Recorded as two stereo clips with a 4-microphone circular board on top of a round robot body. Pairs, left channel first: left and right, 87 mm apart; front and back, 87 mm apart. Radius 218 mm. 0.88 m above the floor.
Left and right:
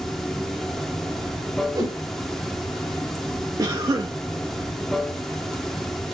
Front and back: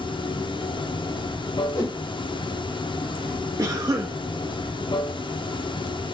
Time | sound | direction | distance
0.0 | running water | 5° left | 0.9 m
1.8 | a whoosh | 50° right | 1.6 m
3.6 | a cough | 130° right | 0.7 m